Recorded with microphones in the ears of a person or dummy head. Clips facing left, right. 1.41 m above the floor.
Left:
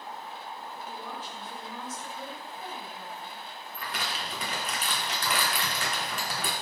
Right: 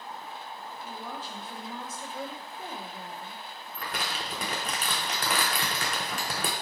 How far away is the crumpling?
About 0.5 m.